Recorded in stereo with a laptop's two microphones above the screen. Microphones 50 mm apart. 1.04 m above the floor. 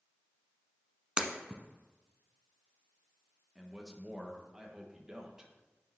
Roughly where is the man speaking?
Centre.